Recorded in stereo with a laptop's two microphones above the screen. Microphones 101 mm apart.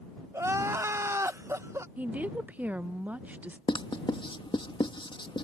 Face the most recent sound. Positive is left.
turn(degrees=55)  # may be behind; listen again after turning